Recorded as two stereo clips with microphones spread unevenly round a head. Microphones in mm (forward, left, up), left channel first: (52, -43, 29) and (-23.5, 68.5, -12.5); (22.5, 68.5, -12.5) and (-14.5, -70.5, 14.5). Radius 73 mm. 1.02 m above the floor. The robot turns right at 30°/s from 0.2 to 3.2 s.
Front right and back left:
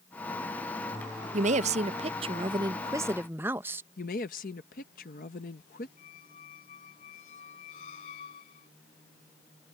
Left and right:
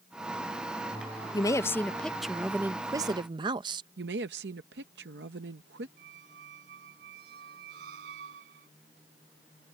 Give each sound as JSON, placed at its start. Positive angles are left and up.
{"t": 1.3, "sound": "a woman speaking", "azimuth_deg": 135}
{"t": 4.0, "sound": "a woman speaking", "azimuth_deg": -95}
{"t": 6.0, "sound": "a squeak", "azimuth_deg": -95}